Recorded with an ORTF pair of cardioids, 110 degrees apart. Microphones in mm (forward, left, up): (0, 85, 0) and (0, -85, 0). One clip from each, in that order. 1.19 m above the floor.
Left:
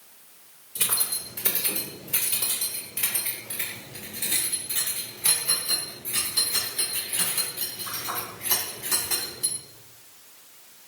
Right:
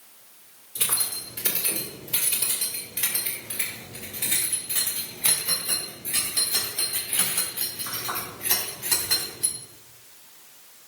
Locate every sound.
0.8 s keys jangling: straight ahead, 3 m; by 9.6 s 30° right, 8 m